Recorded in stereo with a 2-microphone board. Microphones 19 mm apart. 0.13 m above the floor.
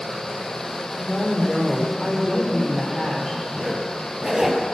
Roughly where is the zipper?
Right.